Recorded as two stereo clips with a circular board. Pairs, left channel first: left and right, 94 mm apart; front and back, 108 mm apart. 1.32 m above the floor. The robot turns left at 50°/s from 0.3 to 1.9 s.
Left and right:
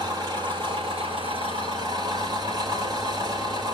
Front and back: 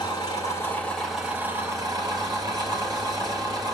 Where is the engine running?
50° right, 3 m; by 3.8 s 130° right, 3 m.